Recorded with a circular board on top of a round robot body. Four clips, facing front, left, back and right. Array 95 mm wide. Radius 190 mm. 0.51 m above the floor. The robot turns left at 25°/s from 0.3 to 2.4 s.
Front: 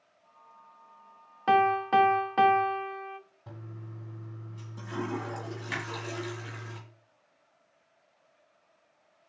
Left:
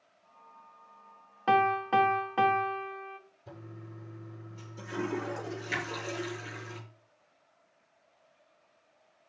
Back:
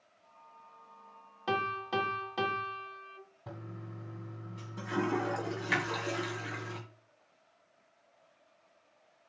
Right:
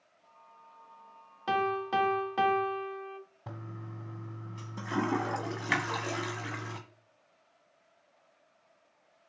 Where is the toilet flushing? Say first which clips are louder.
Right 1 dB, back 3 dB; 95° right, 1.5 m.